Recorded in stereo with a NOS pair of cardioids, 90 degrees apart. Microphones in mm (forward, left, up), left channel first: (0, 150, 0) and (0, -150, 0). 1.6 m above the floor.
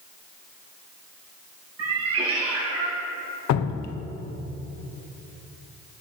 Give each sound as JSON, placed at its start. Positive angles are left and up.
{"t": 1.8, "sound": "a cat meowing", "azimuth_deg": -55, "distance_m": 4.5}
{"t": 3.5, "sound": "dripping", "azimuth_deg": 70, "distance_m": 1.1}